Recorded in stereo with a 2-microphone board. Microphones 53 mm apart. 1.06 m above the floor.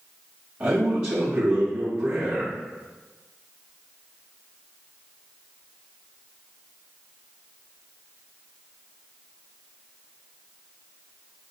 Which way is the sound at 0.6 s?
35° right (ahead or behind).